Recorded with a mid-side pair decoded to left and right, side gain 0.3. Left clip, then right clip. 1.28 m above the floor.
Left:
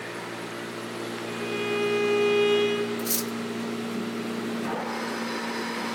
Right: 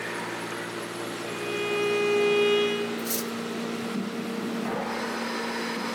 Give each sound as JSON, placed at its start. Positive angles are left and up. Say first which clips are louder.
{"t": 1.3, "sound": "a violin", "louder": "even", "azimuth_deg": -5, "distance_m": 2.5}
{"t": 3.0, "sound": "cutlery clinking", "louder": "left 1 dB", "azimuth_deg": 40, "distance_m": 1.1}